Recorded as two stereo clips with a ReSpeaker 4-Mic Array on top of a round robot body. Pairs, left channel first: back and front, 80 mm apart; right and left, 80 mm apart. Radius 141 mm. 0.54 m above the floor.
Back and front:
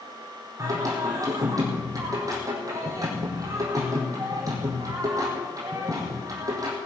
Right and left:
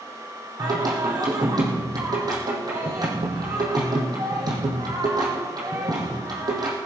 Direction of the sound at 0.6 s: 50° left.